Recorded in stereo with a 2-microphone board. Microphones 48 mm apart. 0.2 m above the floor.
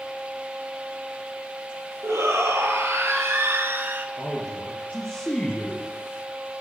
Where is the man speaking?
30° left (ahead or behind), 3.5 m.